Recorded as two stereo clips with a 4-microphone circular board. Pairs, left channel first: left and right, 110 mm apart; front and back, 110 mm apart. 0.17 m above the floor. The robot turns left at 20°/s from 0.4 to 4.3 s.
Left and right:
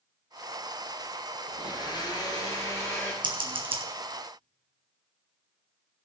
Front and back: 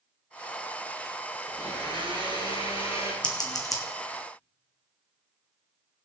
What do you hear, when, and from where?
1.5 s a blender: 55° left, 3 m; by 3.1 s 20° left, 3 m
3.2 s scissors: 50° right, 2.0 m; by 3.8 s 60° right, 2.0 m